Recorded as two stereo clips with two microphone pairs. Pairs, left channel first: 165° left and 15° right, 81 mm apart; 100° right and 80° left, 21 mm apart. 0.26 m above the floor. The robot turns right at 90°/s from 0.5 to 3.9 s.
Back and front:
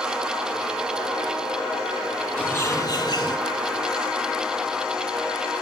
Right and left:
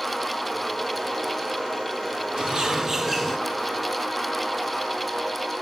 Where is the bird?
95° left, 2 m; by 3.4 s 175° right, 2 m.